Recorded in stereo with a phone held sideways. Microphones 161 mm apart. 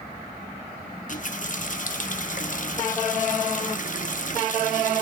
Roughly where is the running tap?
Left.